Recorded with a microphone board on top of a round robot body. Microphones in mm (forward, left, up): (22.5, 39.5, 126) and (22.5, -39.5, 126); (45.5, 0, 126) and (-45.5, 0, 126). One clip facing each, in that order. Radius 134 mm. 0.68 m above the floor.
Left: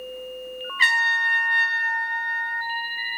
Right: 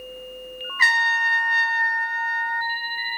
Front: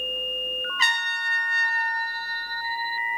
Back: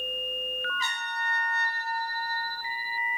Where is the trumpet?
20° right, 3 m.